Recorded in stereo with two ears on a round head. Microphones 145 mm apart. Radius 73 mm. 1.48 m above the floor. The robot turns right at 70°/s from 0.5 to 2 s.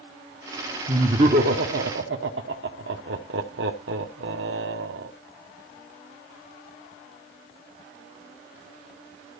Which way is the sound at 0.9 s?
20° right (ahead or behind).